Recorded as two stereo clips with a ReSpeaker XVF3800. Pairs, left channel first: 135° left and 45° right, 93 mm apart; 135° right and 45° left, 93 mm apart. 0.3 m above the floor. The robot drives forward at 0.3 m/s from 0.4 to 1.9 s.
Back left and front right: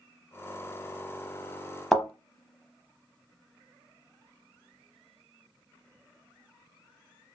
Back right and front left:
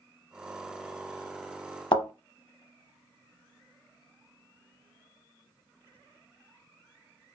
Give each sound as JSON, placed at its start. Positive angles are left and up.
{"t": 1.9, "sound": "a thud", "azimuth_deg": -135, "distance_m": 0.6}